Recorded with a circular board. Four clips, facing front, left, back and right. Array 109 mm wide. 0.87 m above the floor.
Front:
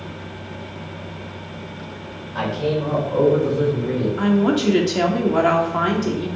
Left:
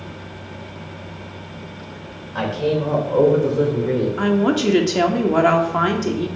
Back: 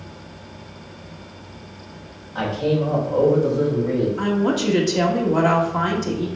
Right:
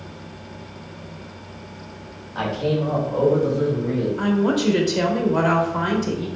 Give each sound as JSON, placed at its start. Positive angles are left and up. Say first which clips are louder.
{"t": 2.4, "sound": "a man speaking", "louder": "left 2 dB, back 1 dB", "azimuth_deg": 75, "distance_m": 3.0}
{"t": 4.2, "sound": "a woman speaking", "louder": "left 1 dB, front 3 dB", "azimuth_deg": 70, "distance_m": 1.9}